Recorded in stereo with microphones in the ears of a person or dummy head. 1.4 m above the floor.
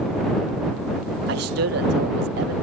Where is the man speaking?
60° right (ahead or behind).